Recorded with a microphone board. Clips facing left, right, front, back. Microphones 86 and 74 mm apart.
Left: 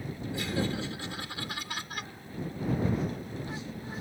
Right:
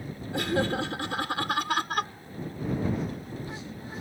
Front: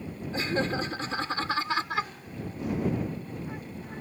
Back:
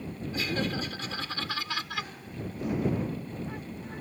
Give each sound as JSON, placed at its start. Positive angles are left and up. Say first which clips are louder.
{"t": 0.3, "sound": "laughter", "louder": "right 6 dB, front 3 dB", "azimuth_deg": -60}